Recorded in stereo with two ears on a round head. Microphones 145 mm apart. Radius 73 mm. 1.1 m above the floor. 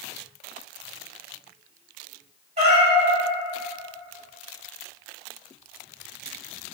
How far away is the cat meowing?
About 0.9 m.